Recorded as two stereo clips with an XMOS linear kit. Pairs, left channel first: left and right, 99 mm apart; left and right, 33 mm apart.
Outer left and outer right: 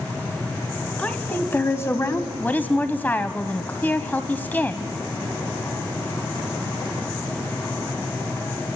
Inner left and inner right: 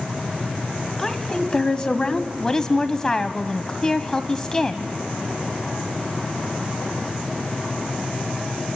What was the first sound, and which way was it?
A woman speaking, 15° left (ahead or behind).